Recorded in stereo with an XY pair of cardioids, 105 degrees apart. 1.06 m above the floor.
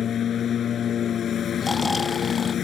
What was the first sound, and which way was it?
A lawn mower, 55° left.